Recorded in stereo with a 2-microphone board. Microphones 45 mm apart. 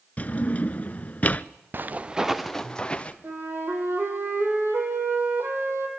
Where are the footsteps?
50° right (ahead or behind), 1.1 m; by 3.1 s 25° left (ahead or behind), 1.9 m.